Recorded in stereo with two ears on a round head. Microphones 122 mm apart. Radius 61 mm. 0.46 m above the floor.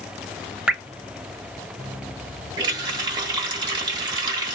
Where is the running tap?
35° right (ahead or behind), 1.0 m.